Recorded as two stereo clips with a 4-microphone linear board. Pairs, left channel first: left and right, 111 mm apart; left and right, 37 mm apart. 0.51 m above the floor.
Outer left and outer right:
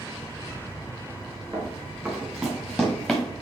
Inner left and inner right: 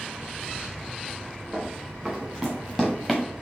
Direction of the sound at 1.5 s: 20° right (ahead or behind).